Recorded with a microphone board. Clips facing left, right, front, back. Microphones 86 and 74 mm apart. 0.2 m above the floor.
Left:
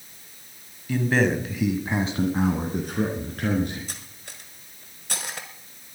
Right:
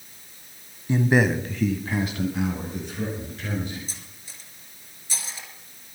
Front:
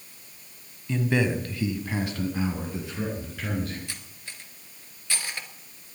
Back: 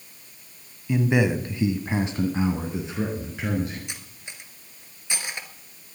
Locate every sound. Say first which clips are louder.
0.9 s a man speaking: right 1 dB, back 3 dB; 120° right, 1.7 m; by 3.8 s 110° left, 4 m
3.9 s cutlery clinking: left 3 dB, back 1 dB; 110° left, 1.7 m